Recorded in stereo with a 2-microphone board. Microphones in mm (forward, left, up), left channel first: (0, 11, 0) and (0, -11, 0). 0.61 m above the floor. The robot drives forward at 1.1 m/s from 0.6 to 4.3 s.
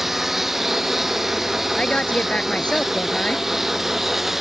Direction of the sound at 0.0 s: 15° right (ahead or behind).